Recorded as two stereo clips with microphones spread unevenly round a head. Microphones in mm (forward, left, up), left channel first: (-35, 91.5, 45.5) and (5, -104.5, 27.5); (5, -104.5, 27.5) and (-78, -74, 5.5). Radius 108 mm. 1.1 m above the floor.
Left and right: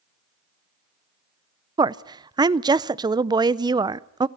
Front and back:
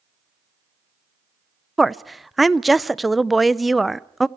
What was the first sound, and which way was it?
A woman speaking, 130° right.